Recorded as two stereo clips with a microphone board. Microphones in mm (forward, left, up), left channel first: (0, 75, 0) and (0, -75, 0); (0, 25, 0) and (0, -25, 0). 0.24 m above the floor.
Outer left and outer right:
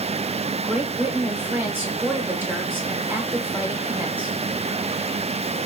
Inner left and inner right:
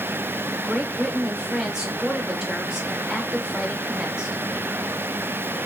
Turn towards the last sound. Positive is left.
turn(degrees=-15)  # may be behind; listen again after turning